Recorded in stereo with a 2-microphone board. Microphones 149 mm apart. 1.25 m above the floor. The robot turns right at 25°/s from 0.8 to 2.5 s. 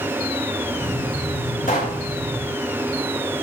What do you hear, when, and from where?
1.7 s a pop: 65° left (ahead or behind), 2 m; by 2.0 s 75° left (ahead or behind), 2 m